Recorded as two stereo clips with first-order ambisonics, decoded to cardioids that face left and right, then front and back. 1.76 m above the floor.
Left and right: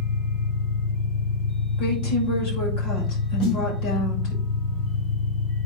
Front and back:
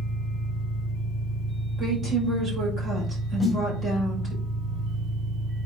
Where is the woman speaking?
110° left, 6.5 m.